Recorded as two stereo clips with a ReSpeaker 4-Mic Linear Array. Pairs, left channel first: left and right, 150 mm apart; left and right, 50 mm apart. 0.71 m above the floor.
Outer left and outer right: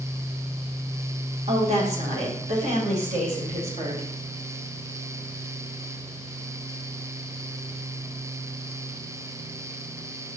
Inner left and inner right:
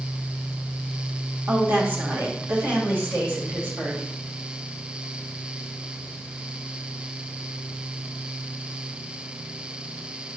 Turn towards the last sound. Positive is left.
turn(degrees=-50)  # may be behind; listen again after turning